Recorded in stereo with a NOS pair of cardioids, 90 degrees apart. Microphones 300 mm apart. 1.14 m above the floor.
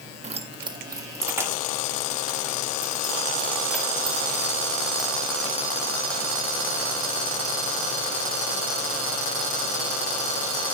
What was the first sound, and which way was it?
Keys jangling, 20° right.